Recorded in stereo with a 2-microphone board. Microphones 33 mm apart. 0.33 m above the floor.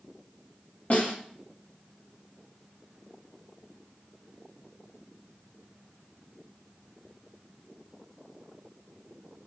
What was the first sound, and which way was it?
A snare drum, 50° left (ahead or behind).